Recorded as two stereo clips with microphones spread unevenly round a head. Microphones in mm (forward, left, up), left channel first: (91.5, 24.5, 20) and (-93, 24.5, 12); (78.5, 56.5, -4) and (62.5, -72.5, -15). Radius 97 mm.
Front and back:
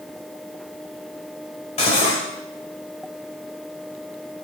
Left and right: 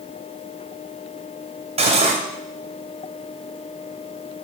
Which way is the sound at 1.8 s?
60° right.